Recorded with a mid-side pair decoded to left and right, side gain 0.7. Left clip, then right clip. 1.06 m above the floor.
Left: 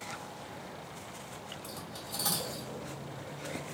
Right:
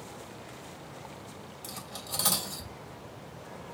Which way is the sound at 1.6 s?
50° right.